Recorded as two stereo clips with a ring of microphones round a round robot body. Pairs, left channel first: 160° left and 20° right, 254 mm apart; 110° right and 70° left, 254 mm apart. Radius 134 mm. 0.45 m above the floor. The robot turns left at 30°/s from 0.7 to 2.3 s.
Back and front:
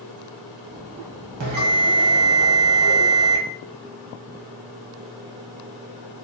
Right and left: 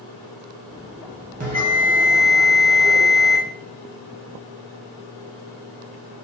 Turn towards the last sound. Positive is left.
turn(degrees=-20)